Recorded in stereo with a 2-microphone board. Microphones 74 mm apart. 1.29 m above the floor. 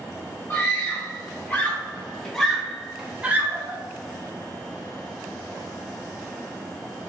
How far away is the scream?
About 1.8 m.